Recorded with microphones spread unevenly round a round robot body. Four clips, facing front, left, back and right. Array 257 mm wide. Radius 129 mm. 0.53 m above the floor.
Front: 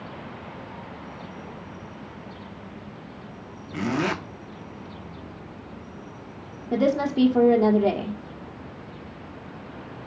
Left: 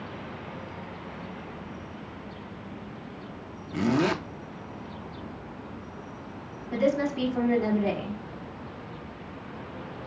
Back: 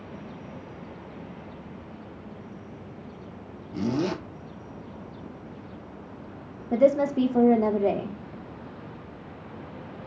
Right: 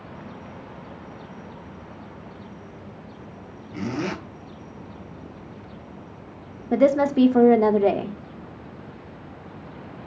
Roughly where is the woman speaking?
Right.